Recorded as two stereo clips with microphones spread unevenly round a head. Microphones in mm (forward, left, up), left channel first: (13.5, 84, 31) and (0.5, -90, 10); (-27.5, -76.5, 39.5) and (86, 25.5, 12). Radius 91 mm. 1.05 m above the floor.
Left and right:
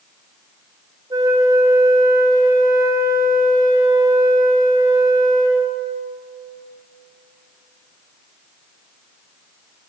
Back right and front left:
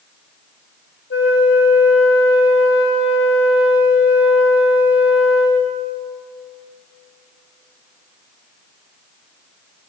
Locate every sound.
1.1 s a flute: 165° right, 1.7 m